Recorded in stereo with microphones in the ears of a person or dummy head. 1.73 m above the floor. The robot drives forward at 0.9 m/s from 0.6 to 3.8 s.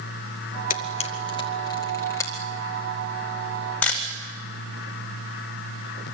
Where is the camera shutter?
45° left (ahead or behind), 0.8 m; by 4.0 s 10° left (ahead or behind), 3.5 m.